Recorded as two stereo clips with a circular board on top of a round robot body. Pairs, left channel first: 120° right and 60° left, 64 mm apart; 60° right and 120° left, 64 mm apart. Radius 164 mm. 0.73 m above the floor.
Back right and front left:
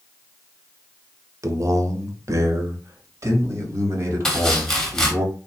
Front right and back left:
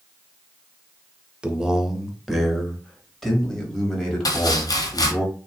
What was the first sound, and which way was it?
A man speaking, 45° left.